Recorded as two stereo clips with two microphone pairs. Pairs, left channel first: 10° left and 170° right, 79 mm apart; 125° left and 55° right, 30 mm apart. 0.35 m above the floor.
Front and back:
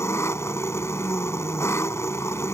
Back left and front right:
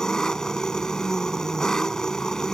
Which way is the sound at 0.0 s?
60° left.